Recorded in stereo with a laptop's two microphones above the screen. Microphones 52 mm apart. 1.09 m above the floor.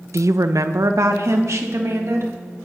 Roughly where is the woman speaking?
Right.